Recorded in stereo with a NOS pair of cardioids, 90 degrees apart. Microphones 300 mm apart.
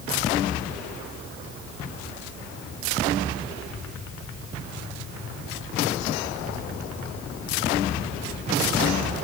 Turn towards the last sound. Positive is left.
No sound to turn to.